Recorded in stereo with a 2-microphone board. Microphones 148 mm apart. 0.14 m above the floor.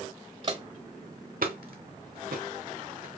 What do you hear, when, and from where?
0.4 s footsteps: 40° right (ahead or behind), 0.8 m; by 3.1 s 85° right, 2 m